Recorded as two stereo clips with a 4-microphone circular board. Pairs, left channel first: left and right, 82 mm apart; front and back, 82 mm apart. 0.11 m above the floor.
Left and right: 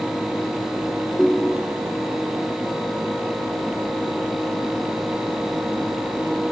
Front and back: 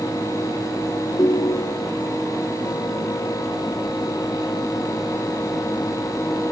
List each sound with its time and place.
1.2 s a ringtone: 5° left, 1.6 m